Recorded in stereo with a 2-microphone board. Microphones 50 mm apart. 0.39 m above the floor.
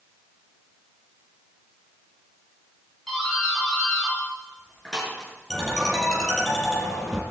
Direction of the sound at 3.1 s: 5° left (ahead or behind).